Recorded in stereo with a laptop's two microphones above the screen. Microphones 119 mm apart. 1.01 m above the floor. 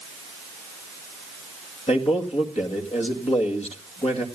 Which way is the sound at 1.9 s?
60° left (ahead or behind).